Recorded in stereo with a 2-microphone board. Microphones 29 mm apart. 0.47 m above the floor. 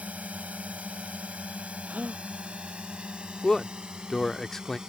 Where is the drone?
65° right (ahead or behind); by 4.9 s 25° right (ahead or behind).